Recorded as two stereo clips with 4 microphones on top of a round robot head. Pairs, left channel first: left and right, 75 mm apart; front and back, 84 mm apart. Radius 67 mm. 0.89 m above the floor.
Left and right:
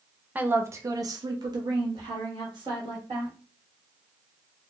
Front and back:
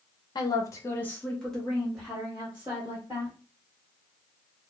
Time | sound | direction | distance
0.3 | a woman speaking | 25° right | 0.6 m